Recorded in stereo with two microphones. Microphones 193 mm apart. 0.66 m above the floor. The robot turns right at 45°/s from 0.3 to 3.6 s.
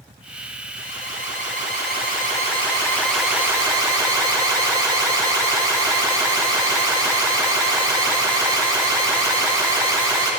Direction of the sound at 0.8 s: 70° left.